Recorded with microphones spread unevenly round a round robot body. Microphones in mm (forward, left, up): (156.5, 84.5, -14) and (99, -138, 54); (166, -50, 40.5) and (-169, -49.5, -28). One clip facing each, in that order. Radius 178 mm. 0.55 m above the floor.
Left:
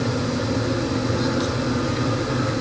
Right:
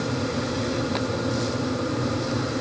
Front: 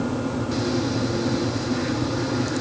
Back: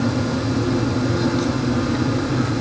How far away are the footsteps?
I don't hear footsteps.